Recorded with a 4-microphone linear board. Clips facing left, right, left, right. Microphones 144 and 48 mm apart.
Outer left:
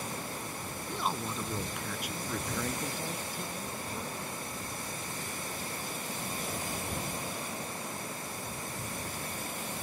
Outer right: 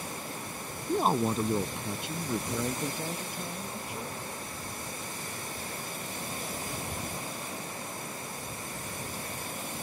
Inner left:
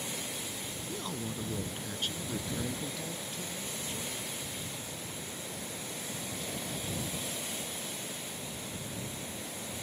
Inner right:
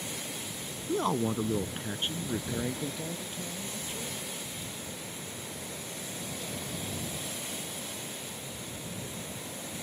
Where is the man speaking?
50° right (ahead or behind); by 4.2 s 10° right (ahead or behind).